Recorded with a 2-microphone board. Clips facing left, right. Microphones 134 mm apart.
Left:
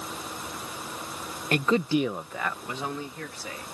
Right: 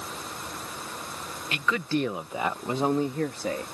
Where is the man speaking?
50° left (ahead or behind); by 3.7 s 50° right (ahead or behind).